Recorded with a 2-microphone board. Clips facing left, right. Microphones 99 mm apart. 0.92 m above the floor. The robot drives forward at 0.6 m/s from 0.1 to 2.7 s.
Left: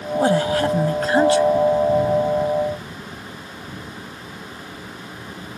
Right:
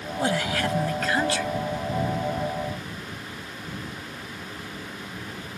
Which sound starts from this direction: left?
A woman speaking, at 0.1 s.